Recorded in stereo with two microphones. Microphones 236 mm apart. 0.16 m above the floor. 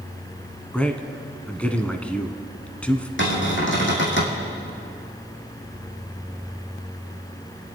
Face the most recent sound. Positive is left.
turn(degrees=55)  # may be behind; listen again after turning